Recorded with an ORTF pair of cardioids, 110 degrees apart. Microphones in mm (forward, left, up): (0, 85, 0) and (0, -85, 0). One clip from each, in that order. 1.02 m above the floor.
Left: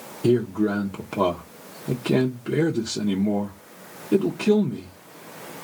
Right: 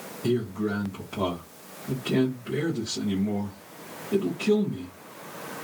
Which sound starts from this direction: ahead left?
A man speaking, at 0.2 s.